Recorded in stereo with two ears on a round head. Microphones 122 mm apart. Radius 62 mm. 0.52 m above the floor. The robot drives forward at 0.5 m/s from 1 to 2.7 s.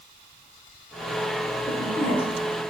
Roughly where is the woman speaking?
Centre.